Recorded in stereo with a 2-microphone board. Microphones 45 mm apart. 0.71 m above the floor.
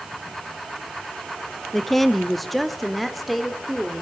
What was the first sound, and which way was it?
A woman speaking, 5° left (ahead or behind).